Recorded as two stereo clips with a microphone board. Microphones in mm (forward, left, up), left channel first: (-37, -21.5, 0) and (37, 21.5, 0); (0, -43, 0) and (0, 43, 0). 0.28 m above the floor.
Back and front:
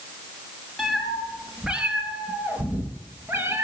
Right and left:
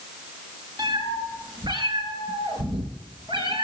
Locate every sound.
0.8 s a cat meowing: 120° left, 3 m; by 3.6 s 85° left, 3 m